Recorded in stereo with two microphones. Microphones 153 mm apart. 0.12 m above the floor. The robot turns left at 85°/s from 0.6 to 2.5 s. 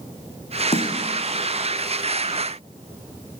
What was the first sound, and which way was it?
A snare drum, 40° left (ahead or behind).